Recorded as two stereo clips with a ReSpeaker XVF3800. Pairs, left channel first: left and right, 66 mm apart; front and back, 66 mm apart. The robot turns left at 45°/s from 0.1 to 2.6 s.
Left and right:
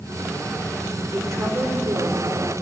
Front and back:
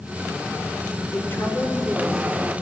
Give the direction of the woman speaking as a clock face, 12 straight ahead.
2 o'clock.